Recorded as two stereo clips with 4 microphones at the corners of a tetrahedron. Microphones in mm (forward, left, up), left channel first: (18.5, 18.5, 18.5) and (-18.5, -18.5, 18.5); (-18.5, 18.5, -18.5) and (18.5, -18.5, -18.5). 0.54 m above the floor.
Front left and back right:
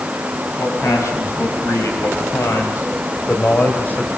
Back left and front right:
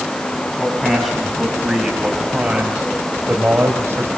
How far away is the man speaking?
About 5 m.